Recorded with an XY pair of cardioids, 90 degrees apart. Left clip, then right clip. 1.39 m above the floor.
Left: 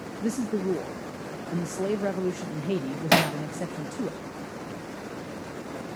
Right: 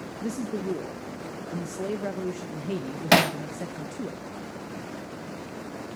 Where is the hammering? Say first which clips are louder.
Right 2 dB; 25° right, 0.9 m.